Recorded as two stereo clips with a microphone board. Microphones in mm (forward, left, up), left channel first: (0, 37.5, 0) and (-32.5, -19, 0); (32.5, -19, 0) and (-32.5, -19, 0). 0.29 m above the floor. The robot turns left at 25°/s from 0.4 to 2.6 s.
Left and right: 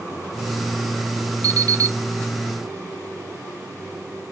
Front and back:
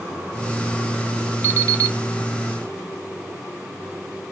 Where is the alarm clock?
135° right, 0.9 m; by 2.0 s 145° right, 0.9 m.